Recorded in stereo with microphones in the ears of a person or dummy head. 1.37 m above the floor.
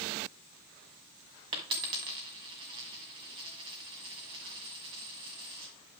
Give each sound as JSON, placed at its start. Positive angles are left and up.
{"t": 1.5, "sound": "a dropped coin", "side_deg": -30, "distance_m": 1.5}